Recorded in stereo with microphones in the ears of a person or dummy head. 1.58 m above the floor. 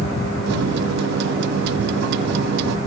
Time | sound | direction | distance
0.5 | a microwave | 60° right (ahead or behind) | 1.1 m